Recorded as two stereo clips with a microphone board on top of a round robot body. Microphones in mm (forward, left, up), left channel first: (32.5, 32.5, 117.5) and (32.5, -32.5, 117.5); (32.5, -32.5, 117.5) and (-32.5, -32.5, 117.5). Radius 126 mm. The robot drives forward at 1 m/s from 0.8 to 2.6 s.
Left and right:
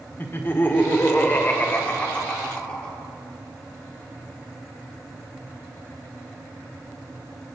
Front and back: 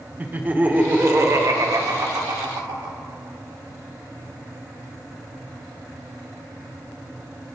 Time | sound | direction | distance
0.2 | laughter | 130° left | 1.3 m